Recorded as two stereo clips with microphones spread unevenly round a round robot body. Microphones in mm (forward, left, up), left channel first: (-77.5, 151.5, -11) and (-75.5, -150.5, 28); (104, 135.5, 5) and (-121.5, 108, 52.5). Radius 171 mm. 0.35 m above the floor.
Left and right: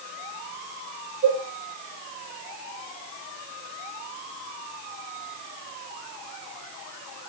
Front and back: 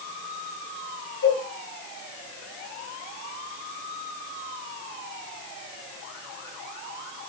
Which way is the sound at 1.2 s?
10° right.